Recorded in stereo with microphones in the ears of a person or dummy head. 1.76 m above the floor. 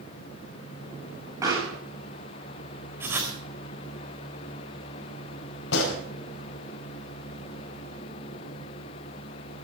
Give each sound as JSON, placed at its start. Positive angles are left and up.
{"t": 1.4, "sound": "a pop", "side_deg": -20, "distance_m": 8.5}
{"t": 3.0, "sound": "writing", "side_deg": -15, "distance_m": 4.0}
{"t": 5.7, "sound": "a gunshot", "side_deg": 65, "distance_m": 5.0}